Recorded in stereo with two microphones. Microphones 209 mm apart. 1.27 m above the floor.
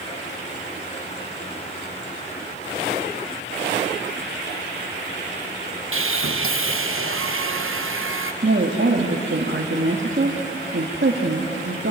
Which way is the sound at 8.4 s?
60° right (ahead or behind).